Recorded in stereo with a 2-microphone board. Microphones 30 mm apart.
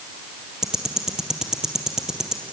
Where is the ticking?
20° right (ahead or behind), 2 m.